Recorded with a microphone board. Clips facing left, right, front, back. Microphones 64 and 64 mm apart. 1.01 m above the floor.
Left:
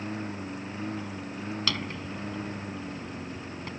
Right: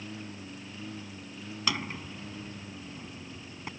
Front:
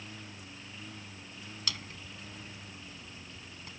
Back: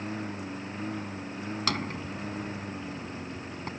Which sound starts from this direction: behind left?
A lawn mower, at 0.0 s.